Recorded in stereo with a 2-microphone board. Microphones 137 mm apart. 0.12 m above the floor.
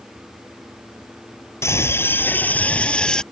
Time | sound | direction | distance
1.6 | a scream | 20° left (ahead or behind) | ?